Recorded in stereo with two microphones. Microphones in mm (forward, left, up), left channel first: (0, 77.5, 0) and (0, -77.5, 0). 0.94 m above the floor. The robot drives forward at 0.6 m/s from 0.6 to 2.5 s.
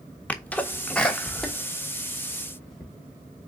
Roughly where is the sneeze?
Centre.